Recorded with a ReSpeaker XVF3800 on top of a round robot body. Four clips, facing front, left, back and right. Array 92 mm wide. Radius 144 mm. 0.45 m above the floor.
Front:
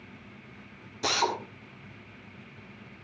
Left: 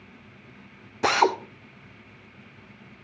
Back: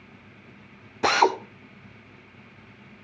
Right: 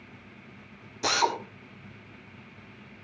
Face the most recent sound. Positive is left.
turn(degrees=135)